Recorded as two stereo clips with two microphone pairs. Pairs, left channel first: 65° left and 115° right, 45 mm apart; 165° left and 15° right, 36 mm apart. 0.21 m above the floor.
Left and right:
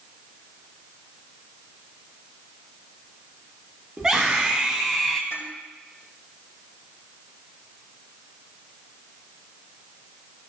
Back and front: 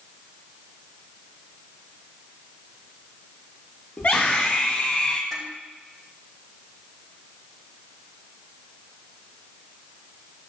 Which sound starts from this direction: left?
Dishes clattering, at 5.3 s.